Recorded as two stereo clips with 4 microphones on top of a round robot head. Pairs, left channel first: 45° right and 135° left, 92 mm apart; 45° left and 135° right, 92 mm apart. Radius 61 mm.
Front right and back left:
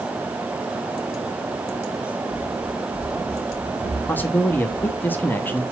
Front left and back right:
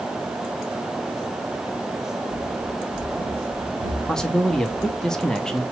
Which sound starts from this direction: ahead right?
A man speaking, at 4.1 s.